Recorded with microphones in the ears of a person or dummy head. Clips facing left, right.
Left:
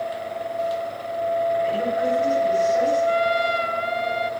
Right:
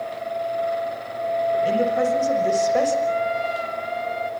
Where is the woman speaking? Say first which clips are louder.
Right 2 dB; 80° right, 7.5 m; by 3.0 s 70° right (ahead or behind), 6.5 m.